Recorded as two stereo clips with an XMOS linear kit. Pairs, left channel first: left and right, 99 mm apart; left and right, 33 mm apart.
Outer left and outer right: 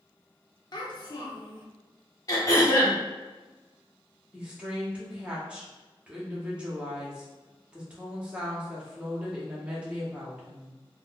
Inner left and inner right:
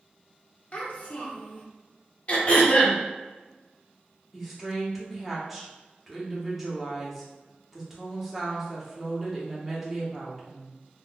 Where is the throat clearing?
35° left (ahead or behind), 0.7 m.